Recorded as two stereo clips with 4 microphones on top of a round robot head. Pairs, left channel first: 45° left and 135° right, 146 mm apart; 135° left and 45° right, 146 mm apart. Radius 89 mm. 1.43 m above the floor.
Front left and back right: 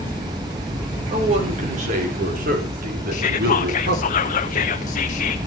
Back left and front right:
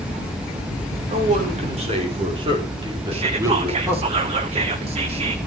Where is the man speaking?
85° right, 5 m; by 4.1 s 120° right, 5 m.